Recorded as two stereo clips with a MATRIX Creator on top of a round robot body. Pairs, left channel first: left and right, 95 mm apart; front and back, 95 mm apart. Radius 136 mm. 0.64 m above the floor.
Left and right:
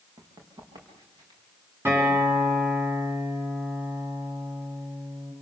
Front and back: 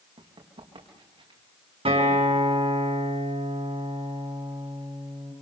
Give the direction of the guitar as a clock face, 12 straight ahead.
5 o'clock.